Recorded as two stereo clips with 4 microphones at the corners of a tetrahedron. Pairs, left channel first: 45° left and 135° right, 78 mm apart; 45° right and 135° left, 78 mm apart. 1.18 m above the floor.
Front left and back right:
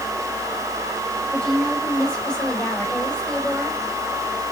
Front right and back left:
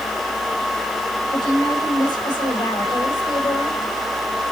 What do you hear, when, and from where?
1.3 s a woman speaking: 35° right, 5 m; by 3.8 s 25° right, 4 m